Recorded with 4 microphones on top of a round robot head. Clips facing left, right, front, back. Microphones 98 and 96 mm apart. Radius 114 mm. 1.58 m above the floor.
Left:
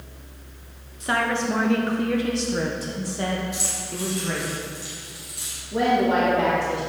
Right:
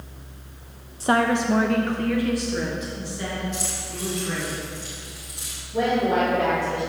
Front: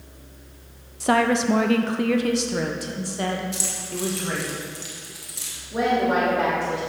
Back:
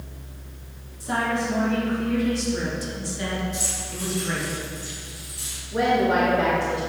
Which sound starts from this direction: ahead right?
A woman speaking, at 1.0 s.